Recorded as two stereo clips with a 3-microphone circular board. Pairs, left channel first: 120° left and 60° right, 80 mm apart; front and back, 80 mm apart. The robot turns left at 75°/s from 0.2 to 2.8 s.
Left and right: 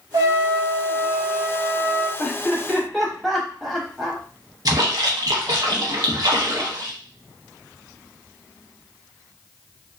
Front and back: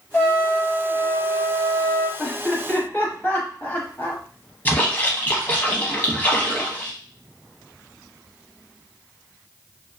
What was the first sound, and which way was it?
A trumpet, 60° right.